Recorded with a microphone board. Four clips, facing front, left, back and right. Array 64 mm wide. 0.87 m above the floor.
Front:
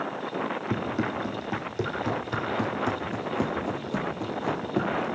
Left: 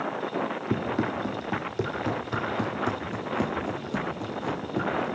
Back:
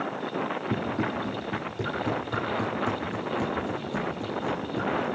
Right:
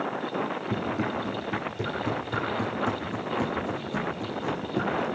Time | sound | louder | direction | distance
0.7 | running footsteps | left 3 dB, even | 75° left | 2.5 m